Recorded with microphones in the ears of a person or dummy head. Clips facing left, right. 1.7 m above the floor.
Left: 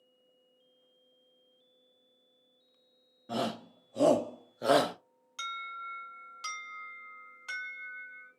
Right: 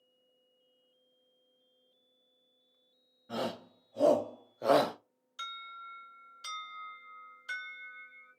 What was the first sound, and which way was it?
A shout, 50° left (ahead or behind).